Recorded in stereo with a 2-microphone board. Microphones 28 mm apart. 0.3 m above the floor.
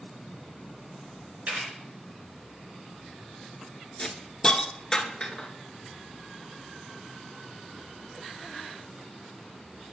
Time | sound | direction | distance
1.5 | a camera shutter | 70° right (ahead or behind) | 3.5 m
4.0 | a hiss | 15° left (ahead or behind) | 0.7 m